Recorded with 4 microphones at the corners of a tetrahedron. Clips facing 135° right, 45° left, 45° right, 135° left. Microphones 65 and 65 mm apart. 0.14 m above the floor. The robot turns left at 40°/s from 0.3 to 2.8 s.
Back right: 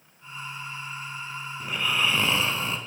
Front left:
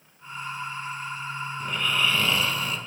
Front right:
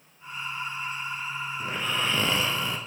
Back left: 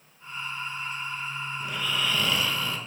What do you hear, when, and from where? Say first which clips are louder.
1.6 s snoring: even, front right 1 dB; 55° right, 0.5 m; by 2.8 s 100° right, 0.5 m